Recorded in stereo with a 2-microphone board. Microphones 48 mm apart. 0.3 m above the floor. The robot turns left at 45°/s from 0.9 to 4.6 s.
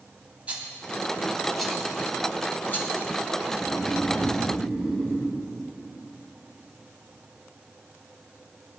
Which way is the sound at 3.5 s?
45° left.